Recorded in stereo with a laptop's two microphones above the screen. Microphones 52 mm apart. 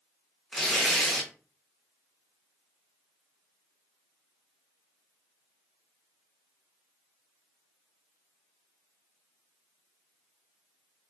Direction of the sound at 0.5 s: Centre (ahead or behind).